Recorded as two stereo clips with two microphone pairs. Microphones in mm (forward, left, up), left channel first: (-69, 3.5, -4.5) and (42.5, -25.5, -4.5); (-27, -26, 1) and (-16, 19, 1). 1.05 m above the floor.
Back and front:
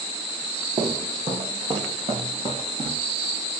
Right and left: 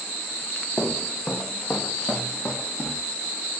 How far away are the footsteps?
About 1.9 m.